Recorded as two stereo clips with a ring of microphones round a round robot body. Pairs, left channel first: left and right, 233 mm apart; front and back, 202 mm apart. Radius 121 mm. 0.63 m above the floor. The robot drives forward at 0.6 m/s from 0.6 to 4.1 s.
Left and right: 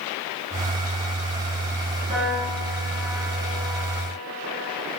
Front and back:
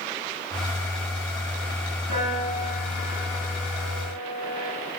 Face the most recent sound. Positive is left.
turn(degrees=-155)